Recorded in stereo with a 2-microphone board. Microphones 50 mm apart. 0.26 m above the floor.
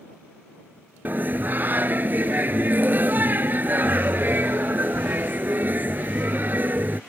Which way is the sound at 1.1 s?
40° right (ahead or behind).